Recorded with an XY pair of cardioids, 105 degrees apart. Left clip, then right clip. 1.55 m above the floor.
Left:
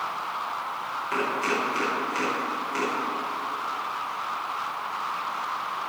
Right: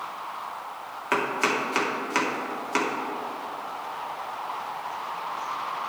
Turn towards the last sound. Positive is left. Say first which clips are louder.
# right 2 dB
turn(degrees=-60)